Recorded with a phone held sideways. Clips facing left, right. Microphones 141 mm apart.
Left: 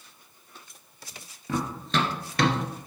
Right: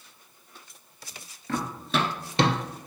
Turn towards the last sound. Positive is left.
turn(degrees=-30)  # may be behind; listen again after turning